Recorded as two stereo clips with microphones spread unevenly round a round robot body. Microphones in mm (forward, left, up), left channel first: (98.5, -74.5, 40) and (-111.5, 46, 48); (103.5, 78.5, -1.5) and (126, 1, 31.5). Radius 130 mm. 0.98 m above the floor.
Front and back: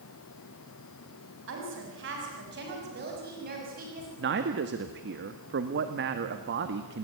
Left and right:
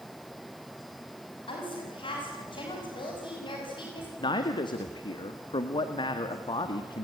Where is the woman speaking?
110° left, 6.5 m; by 4.1 s 90° left, 6 m.